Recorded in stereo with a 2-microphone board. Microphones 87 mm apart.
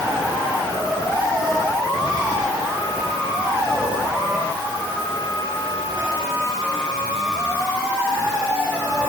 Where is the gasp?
No gasp in this recording.